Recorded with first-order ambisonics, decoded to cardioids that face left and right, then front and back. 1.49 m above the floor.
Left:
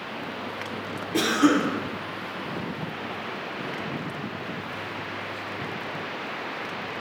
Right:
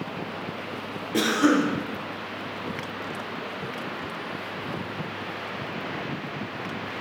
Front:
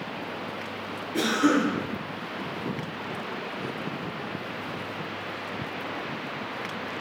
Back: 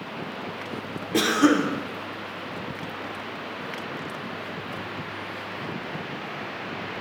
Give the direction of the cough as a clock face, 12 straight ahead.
6 o'clock.